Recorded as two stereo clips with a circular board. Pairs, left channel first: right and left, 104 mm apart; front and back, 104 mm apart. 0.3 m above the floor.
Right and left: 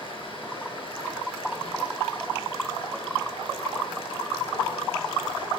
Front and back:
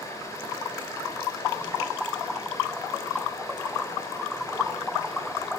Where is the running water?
55° right, 4 m.